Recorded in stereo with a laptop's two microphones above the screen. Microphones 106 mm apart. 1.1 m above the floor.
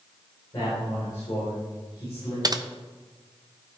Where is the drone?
No drone in this recording.